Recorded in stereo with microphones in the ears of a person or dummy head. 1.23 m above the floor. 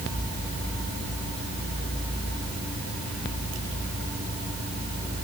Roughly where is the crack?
No crack in this recording.